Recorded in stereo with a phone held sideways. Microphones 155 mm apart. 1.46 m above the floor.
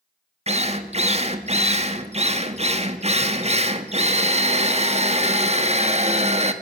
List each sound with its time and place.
0.5 s a drill: 45° right (ahead or behind), 1.7 m